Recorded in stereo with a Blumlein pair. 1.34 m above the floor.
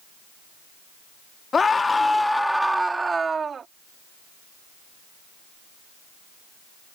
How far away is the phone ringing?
I don't hear a phone ringing.